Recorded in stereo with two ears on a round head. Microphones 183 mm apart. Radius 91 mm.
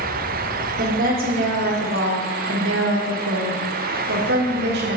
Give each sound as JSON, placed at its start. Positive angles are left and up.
{"t": 0.8, "sound": "a woman speaking", "side_deg": -40, "distance_m": 2.0}